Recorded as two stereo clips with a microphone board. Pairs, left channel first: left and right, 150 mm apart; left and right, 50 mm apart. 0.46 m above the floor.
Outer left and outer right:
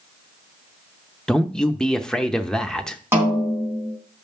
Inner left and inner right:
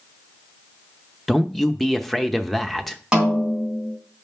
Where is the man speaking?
5° left (ahead or behind), 0.7 m.